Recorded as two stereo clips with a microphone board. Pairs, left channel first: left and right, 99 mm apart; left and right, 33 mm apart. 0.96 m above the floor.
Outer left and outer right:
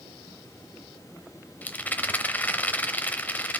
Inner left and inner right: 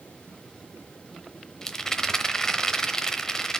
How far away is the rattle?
About 0.8 m.